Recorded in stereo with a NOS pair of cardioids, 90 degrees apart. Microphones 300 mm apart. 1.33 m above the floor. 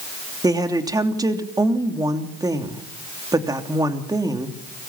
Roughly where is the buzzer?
I don't hear a buzzer.